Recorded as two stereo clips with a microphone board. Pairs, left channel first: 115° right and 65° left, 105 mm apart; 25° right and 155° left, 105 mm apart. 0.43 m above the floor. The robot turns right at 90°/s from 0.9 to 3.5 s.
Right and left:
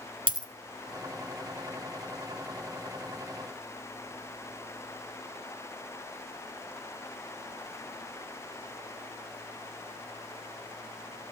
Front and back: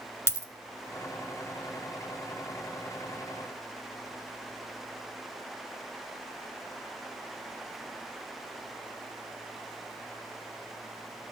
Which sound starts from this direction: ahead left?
A dropped coin, at 0.3 s.